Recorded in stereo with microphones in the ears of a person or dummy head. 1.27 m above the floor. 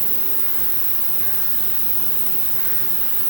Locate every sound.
0.0 s an insect: 5° right (ahead or behind), 0.7 m